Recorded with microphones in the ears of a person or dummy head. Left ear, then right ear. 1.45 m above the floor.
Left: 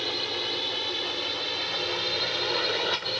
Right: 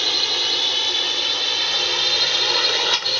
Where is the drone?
40° right (ahead or behind); by 3.2 s 35° right (ahead or behind).